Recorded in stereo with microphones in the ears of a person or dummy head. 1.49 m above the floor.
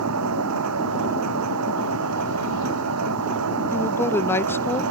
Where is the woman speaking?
20° left (ahead or behind).